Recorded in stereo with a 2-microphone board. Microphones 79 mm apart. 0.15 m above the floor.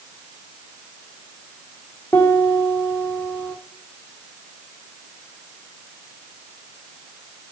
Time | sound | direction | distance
2.1 | a piano | 20° left (ahead or behind) | 3.5 m